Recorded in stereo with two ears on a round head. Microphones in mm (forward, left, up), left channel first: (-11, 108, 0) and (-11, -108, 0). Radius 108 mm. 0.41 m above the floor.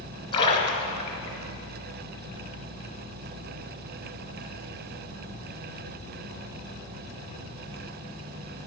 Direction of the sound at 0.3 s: 20° left (ahead or behind).